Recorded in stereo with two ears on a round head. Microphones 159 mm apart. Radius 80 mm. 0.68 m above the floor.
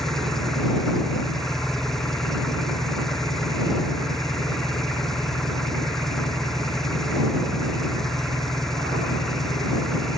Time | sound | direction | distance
0.0 | an engine running | centre (ahead or behind) | ?